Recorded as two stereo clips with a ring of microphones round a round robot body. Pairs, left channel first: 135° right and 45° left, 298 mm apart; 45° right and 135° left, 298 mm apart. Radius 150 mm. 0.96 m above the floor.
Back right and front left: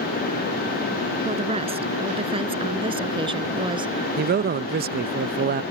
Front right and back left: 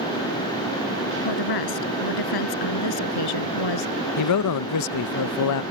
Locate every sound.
1.2 s a woman speaking: 25° right; by 4.1 s 30° right
4.2 s a man speaking: 15° right